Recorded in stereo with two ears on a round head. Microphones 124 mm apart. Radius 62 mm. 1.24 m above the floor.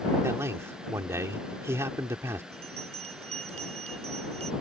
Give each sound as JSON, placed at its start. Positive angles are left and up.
{"t": 0.2, "sound": "a man speaking", "side_deg": -20}
{"t": 2.5, "sound": "a bell", "side_deg": -50}